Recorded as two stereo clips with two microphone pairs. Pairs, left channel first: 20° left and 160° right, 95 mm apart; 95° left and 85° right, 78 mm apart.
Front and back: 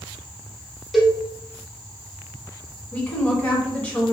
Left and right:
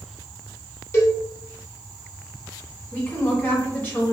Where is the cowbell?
110° left, 0.7 m.